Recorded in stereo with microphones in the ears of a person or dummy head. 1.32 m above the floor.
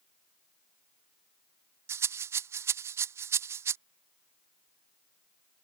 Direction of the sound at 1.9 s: 15° right (ahead or behind).